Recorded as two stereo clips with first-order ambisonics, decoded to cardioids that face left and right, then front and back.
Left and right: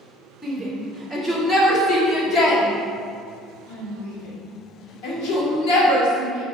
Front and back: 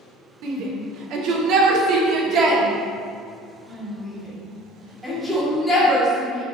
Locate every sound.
0.4 s a shout: straight behind, 2.0 m; by 6.4 s 80° left, 3 m